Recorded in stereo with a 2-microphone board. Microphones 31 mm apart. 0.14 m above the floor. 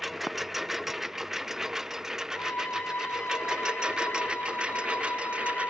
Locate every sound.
0.0 s a lawn mower: 5° right (ahead or behind); by 5.7 s 40° right (ahead or behind)
2.3 s a violin: 85° left